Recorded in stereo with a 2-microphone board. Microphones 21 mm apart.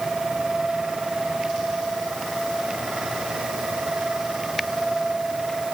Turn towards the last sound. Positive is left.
No sound to turn to.